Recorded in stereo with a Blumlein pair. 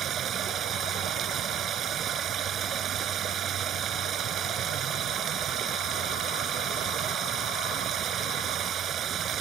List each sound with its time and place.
0.0 s running water: 30° right